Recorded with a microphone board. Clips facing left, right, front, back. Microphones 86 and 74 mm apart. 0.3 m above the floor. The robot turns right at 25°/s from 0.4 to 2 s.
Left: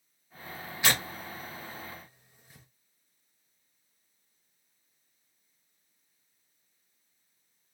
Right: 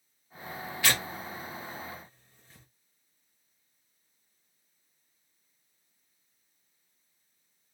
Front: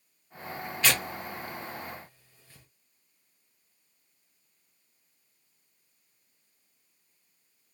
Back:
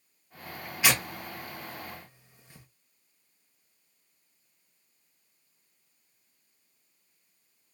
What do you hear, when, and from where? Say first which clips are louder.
0.8 s tearing paper: left 1 dB, back 1 dB; 120° left, 1.0 m; by 2.7 s 145° left, 1.0 m